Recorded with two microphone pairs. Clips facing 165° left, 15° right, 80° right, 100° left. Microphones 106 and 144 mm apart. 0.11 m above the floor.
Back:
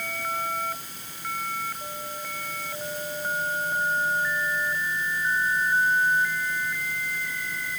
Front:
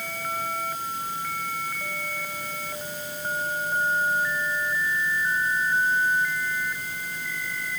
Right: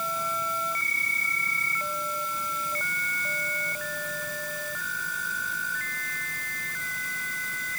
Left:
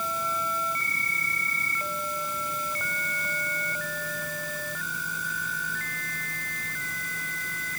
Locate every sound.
Only background noise.